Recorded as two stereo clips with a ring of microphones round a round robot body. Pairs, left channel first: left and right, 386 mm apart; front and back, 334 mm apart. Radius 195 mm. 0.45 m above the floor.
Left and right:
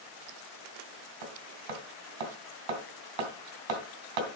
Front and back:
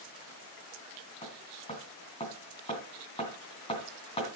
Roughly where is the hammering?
Right.